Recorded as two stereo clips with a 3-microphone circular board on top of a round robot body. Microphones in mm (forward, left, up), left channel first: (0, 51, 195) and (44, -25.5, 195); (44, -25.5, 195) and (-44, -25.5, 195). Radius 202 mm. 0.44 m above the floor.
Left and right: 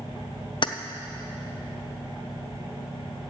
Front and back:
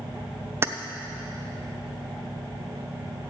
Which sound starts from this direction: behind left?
Keys jangling, at 0.6 s.